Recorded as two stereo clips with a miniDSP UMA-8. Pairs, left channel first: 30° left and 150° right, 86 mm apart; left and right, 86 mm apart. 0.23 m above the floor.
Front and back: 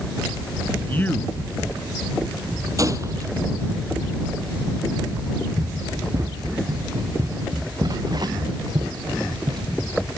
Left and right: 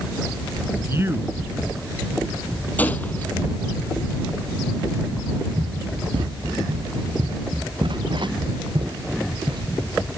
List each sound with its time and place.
0.8 s a man speaking: 35° right
2.8 s a gunshot: 160° left
5.6 s running footsteps: 105° right; by 9.6 s 120° right